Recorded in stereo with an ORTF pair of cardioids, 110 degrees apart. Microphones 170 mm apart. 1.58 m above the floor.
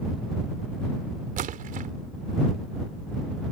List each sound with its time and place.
1.4 s a splash: 55° right